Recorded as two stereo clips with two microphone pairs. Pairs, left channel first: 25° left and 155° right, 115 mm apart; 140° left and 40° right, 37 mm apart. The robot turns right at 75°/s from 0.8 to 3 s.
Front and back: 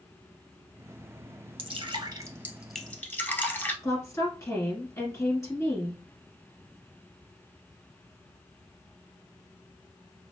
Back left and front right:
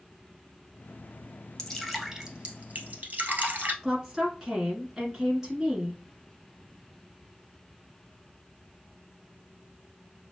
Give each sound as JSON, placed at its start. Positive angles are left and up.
{"t": 1.6, "sound": "dripping", "azimuth_deg": -150, "distance_m": 1.2}
{"t": 3.8, "sound": "a woman speaking", "azimuth_deg": 15, "distance_m": 1.4}